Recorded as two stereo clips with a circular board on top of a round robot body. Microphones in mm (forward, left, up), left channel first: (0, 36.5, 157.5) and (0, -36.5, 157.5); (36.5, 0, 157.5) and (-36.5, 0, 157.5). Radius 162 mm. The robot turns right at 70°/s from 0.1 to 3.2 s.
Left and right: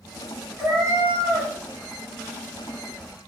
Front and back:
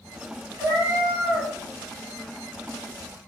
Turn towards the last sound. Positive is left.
turn(degrees=25)